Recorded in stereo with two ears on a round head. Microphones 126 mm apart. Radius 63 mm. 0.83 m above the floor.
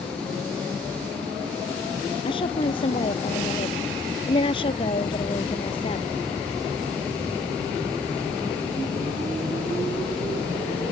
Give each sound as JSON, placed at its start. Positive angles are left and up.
{"t": 2.2, "sound": "a woman speaking", "side_deg": 40}